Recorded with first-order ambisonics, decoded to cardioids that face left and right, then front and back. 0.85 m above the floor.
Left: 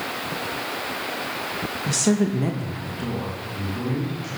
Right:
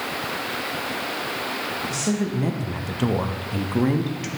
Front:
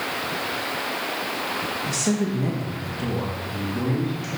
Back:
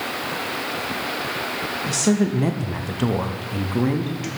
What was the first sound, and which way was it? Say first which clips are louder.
A woman speaking: left 3 dB, back 3 dB; 105° left.